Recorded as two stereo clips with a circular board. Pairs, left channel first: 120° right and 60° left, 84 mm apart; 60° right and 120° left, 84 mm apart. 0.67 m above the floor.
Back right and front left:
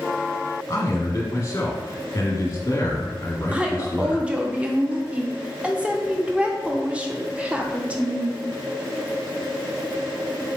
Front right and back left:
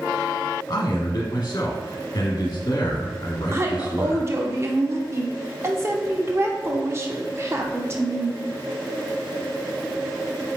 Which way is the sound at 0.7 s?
80° right.